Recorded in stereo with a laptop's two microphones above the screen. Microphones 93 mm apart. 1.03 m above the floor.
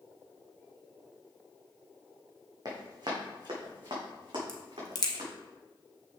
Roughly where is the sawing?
I don't hear sawing.